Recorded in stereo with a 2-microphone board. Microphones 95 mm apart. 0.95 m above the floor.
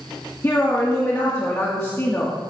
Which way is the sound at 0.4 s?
30° left (ahead or behind).